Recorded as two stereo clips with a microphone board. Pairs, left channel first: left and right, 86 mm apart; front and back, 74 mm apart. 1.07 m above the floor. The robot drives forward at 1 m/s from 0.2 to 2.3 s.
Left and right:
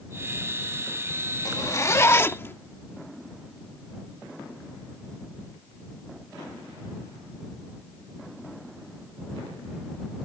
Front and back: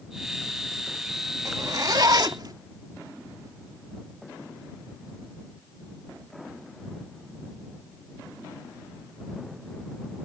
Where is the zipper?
135° left; by 2.5 s 155° left.